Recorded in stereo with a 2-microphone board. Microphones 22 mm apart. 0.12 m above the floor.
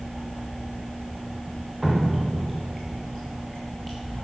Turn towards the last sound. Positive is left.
turn(degrees=0)  # may be behind; listen again after turning